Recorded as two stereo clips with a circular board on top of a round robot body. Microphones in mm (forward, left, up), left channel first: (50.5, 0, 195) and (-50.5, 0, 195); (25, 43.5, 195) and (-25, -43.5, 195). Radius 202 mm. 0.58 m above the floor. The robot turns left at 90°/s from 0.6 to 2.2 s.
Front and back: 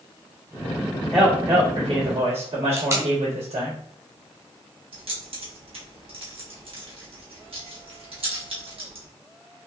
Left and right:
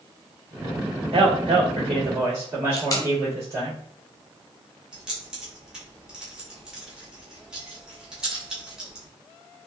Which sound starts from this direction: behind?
Keys jangling, at 4.9 s.